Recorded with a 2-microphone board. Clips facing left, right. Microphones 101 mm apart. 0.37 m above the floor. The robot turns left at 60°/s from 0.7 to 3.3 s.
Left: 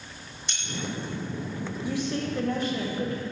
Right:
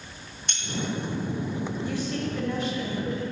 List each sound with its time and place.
0.5 s keys jangling: 50° right (ahead or behind), 1.6 m
1.8 s a woman speaking: 170° left, 1.8 m; by 3.2 s 85° left, 1.8 m